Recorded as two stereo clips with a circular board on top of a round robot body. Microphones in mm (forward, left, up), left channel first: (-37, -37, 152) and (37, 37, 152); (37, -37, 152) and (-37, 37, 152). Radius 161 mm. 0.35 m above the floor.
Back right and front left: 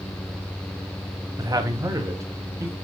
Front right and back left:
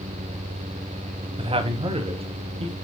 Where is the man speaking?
100° left, 3 m; by 2.7 s 110° left, 3.5 m.